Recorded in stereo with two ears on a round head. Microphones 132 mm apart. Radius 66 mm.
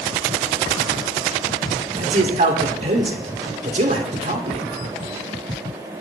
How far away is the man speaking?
About 2.5 m.